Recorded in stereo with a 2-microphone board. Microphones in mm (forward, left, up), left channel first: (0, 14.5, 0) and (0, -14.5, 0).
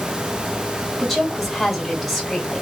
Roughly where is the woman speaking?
Centre.